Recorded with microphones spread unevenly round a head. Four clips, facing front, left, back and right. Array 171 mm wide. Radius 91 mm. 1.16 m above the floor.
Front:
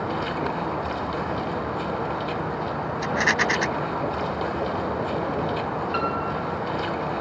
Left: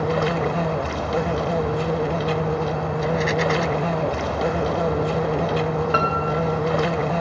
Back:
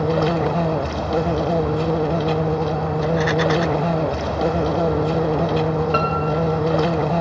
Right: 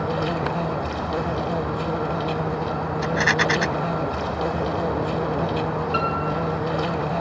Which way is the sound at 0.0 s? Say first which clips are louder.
Left 3 dB, back 7 dB; straight behind.